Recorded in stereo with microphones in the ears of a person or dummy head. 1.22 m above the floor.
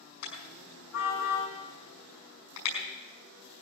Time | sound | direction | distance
0.2 | a car horn | 75° left (ahead or behind) | 5.5 m